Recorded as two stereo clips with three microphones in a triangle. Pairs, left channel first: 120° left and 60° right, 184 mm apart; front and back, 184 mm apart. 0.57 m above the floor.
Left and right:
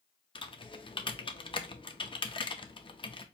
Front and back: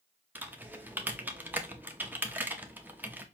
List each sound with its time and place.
0.3 s typing on a keyboard: 110° left, 0.5 m